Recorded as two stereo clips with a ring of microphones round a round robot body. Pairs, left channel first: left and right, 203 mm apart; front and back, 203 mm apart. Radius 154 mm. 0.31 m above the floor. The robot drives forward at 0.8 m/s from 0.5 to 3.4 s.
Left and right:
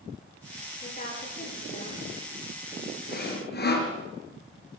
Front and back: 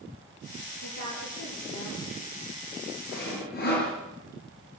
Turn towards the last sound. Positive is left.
turn(degrees=55)